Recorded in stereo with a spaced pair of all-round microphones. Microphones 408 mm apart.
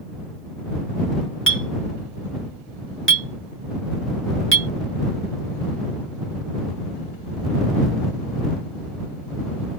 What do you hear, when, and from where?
1.5 s a clink: 30° left (ahead or behind)